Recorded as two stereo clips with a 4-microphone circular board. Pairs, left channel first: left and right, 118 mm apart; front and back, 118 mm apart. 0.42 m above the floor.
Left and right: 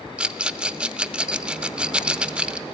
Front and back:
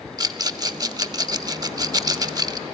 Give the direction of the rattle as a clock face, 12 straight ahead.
5 o'clock.